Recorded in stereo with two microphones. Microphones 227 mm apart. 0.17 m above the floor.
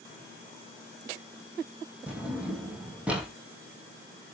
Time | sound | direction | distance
2.1 | a drawer | 5° right (ahead or behind) | 3 m